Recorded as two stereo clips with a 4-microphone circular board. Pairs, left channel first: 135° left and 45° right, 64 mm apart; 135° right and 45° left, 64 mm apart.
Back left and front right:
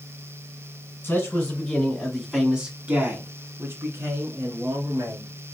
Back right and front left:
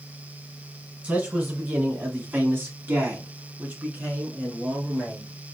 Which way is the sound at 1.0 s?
95° left.